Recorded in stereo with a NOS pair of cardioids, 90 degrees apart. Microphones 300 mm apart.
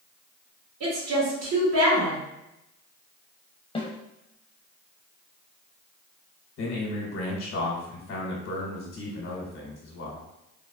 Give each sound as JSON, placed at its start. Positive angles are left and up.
{"t": 0.8, "sound": "a woman speaking", "azimuth_deg": -70, "distance_m": 1.7}
{"t": 3.8, "sound": "a snare drum", "azimuth_deg": 20, "distance_m": 0.7}
{"t": 6.6, "sound": "a man speaking", "azimuth_deg": 55, "distance_m": 1.0}